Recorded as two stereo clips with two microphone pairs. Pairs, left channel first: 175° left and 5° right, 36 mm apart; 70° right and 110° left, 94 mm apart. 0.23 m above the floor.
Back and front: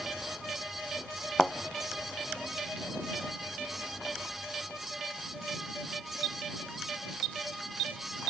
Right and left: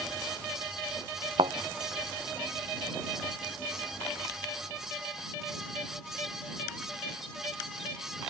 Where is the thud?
105° left.